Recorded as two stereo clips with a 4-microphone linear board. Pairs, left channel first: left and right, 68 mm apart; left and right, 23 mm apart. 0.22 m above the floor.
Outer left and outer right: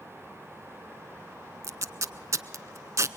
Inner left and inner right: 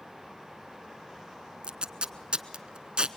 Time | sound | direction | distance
1.6 | tape being pulled | 50° right (ahead or behind) | 0.6 m